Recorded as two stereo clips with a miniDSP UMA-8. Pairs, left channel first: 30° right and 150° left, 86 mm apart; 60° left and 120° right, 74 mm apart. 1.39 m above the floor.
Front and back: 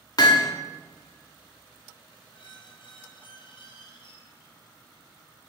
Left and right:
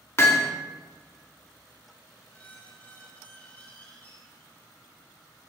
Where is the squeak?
10° right, 3 m.